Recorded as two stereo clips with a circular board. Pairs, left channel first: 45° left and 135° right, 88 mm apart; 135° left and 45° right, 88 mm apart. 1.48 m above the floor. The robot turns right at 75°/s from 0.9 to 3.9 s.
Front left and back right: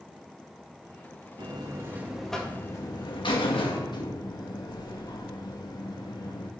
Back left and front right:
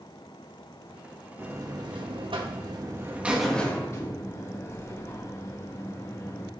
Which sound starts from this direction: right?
A buzzer, at 1.4 s.